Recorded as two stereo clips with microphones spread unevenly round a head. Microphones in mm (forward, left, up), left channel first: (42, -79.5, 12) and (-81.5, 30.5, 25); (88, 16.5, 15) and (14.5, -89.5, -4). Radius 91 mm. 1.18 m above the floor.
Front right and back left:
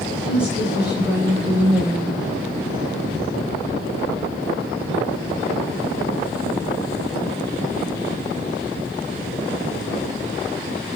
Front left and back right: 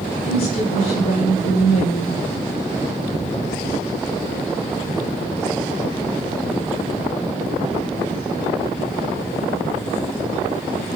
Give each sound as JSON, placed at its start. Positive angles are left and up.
{"t": 0.2, "sound": "a woman speaking", "azimuth_deg": 55, "distance_m": 6.0}